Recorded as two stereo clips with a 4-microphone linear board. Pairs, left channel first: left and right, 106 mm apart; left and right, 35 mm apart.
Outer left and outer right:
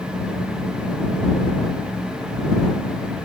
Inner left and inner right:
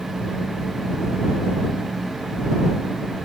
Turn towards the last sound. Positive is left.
No sound to turn to.